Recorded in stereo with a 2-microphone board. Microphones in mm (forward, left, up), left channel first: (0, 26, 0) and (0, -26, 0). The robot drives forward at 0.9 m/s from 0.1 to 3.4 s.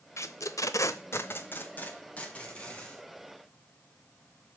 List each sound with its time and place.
0.2 s tape being pulled: 65° left (ahead or behind), 0.8 m; by 3.0 s 20° left (ahead or behind), 2.5 m